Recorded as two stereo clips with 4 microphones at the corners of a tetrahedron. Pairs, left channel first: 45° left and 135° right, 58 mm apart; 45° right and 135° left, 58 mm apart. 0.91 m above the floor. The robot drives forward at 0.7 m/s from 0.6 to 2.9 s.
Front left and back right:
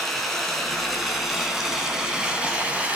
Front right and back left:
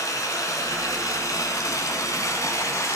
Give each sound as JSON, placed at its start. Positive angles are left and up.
{"t": 0.0, "sound": "running water", "azimuth_deg": -45, "distance_m": 3.5}